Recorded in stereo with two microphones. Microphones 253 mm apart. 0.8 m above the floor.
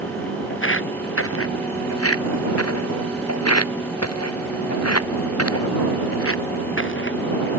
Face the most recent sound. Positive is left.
turn(degrees=45)  # may be behind; listen again after turning